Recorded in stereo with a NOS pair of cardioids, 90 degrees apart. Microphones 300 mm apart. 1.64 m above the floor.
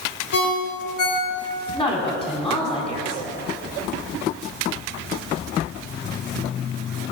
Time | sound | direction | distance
0.3 | a ringtone | 60° left | 2.5 m
1.7 | a woman speaking | 20° left | 4 m